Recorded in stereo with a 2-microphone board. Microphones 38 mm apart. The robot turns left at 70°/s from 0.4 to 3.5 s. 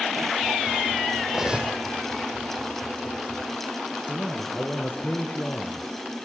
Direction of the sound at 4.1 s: 35° left (ahead or behind).